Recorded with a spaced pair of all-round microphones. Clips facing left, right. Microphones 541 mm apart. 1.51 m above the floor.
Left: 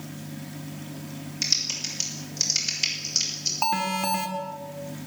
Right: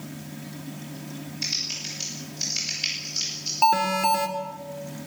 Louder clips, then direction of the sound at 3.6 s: Right 4 dB; 25° left (ahead or behind).